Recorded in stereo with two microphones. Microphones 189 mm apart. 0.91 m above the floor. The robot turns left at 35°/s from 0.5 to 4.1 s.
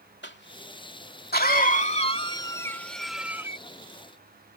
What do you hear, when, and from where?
0.2 s a cough: 70° left (ahead or behind); by 3.6 s 15° right (ahead or behind)